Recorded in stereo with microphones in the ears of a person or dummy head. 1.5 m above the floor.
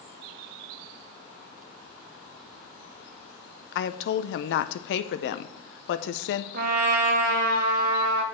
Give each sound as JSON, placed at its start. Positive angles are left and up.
{"t": 3.7, "sound": "a woman speaking", "side_deg": 70, "distance_m": 0.6}
{"t": 6.5, "sound": "a trumpet", "side_deg": -60, "distance_m": 1.4}